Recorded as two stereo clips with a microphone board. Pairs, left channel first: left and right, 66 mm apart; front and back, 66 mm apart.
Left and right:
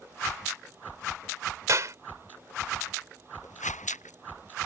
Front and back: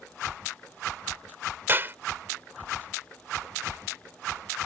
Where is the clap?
125° right.